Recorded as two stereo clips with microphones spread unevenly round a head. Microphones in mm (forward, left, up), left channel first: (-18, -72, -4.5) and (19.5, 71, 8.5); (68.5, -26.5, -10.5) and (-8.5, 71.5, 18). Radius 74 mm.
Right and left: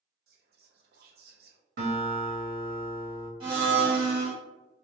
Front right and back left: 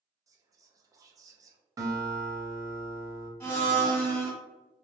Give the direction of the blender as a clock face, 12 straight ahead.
11 o'clock.